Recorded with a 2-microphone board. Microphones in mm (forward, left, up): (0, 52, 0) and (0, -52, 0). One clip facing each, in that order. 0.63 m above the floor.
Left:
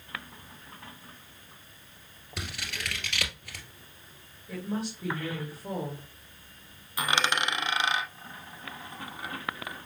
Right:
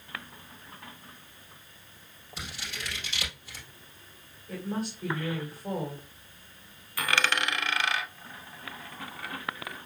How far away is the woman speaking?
About 2 m.